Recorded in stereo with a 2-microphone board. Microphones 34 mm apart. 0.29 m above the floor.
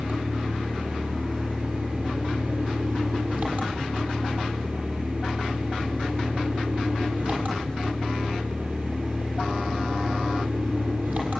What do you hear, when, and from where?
0.0 s an engine running: 65° right (ahead or behind), 7 m